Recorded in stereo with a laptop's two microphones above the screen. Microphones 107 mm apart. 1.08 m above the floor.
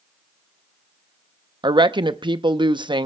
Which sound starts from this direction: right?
A woman speaking, at 1.6 s.